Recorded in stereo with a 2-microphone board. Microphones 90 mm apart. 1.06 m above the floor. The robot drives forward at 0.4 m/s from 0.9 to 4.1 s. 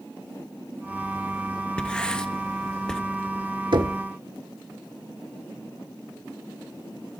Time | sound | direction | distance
1.8 | writing | 10° left (ahead or behind) | 1.1 m
3.7 | knocking | 60° right (ahead or behind) | 1.6 m